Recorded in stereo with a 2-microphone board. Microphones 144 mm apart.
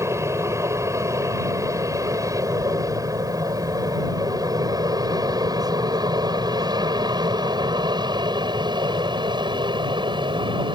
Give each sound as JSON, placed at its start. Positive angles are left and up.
{"t": 0.0, "sound": "an aircraft", "side_deg": -20}